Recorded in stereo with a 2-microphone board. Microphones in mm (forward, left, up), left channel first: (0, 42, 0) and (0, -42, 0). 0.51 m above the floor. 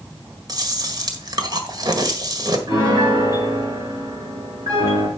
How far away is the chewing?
About 1.6 m.